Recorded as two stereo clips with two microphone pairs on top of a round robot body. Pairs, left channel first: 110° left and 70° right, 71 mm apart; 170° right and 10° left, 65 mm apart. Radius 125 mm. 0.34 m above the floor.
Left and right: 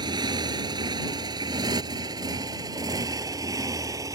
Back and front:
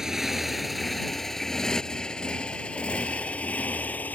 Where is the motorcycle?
70° right; by 4.2 s 105° right.